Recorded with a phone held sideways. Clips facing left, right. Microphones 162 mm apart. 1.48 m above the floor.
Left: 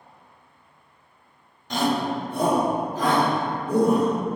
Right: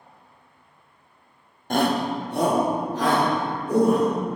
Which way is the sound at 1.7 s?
50° right (ahead or behind).